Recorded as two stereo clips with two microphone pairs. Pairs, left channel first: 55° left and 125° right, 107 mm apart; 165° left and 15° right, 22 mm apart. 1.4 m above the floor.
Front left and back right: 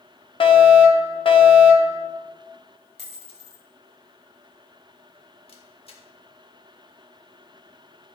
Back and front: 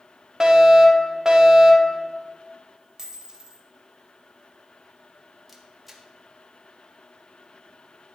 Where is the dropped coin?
55° left, 2 m.